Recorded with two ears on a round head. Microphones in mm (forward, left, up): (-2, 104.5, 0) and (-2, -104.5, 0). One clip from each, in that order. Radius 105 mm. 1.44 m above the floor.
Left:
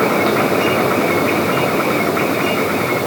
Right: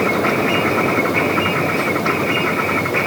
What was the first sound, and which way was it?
Only background noise.